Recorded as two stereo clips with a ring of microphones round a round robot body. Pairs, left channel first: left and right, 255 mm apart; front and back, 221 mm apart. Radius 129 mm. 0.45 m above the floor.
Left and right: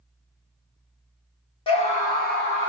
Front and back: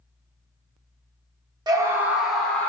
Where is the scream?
130° left, 1.1 m; by 2.7 s 80° left, 1.3 m.